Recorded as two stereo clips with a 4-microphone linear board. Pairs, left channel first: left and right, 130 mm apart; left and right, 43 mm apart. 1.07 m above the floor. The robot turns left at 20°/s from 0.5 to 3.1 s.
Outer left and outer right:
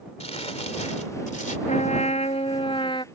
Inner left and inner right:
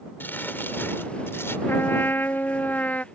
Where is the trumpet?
65° left (ahead or behind); by 3.0 s 40° left (ahead or behind).